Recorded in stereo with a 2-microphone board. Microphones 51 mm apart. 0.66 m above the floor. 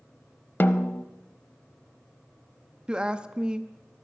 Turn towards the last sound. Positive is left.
turn(degrees=-20)  # may be behind; listen again after turning